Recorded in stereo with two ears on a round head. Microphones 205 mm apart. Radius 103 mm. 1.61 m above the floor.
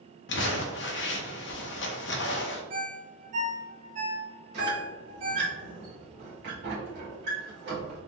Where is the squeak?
50° right (ahead or behind), 1.7 m.